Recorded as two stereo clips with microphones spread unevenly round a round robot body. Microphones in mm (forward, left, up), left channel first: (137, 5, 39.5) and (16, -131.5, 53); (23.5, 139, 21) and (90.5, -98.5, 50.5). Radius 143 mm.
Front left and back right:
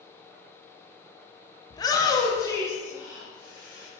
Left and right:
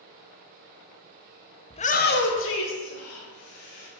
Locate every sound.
1.7 s a shout: 80° left, 0.7 m; by 3.9 s 125° left, 2.5 m